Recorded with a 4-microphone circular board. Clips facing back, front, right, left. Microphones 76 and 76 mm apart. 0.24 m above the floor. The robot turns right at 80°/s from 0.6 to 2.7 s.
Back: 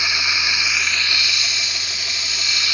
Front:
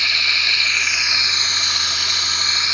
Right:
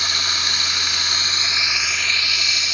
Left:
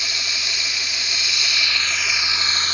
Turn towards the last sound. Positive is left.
turn(degrees=60)